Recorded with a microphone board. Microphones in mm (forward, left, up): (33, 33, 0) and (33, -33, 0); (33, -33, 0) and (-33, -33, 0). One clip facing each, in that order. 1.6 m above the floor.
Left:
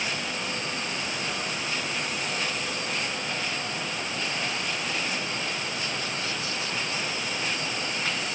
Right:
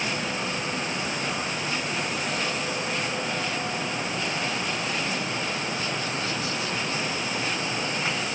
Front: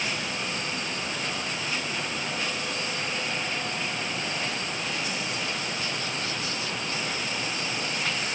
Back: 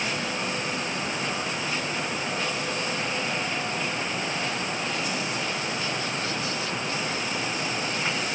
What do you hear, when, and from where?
Only background noise.